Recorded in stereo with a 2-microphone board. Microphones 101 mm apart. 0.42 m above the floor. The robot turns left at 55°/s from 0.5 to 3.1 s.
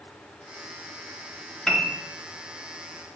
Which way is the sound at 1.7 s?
5° left (ahead or behind).